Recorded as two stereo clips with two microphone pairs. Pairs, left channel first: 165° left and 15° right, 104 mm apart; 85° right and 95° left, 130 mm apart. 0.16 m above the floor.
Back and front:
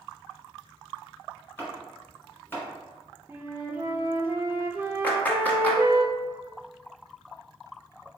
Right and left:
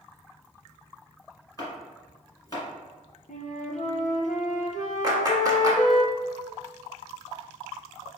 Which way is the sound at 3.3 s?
85° right.